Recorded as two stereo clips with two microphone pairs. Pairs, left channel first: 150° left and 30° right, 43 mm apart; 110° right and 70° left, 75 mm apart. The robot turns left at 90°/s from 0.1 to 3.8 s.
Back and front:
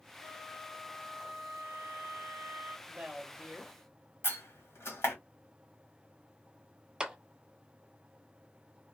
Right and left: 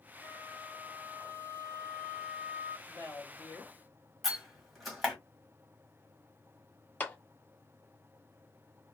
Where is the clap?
75° right, 0.6 m.